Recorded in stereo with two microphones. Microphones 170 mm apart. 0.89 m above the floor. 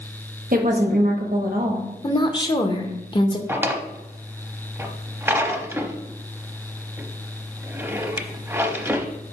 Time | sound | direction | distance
0.5 | a woman speaking | 55° right (ahead or behind) | 1.2 m
2.0 | a woman speaking | 25° left (ahead or behind) | 0.7 m
3.5 | a drawer | 15° right (ahead or behind) | 0.6 m